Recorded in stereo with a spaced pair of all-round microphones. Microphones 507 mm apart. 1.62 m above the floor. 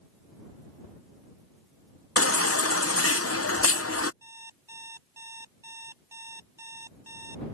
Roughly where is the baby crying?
Left.